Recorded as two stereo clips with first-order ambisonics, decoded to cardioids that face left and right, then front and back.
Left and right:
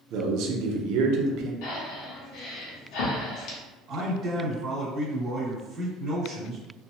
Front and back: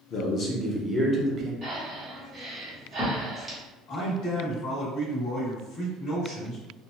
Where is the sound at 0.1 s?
55° right, 0.8 m; by 1.5 s 120° right, 0.7 m.